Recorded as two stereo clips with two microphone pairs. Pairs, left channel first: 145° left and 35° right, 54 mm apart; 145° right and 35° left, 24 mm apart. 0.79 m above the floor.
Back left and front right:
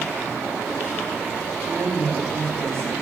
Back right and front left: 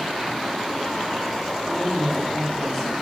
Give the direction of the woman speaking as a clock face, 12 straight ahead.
2 o'clock.